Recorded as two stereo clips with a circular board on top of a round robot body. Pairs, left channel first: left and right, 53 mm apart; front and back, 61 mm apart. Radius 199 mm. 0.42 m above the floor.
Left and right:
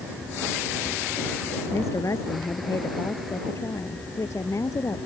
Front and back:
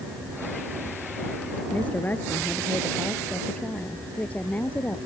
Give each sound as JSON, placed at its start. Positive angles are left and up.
{"t": 1.7, "sound": "a woman speaking", "azimuth_deg": 65}